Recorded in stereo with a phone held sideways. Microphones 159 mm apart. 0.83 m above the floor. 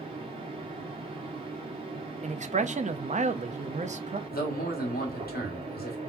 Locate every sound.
0.0 s a fan: 35° right (ahead or behind), 1.6 m
2.2 s a man speaking: 50° right (ahead or behind), 0.6 m
4.3 s a man speaking: 75° left (ahead or behind), 1.9 m